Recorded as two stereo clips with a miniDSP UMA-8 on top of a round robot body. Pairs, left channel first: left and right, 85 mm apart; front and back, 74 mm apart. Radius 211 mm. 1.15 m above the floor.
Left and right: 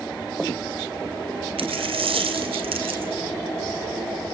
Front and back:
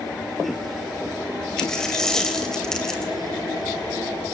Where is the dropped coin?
85° right, 2.5 m.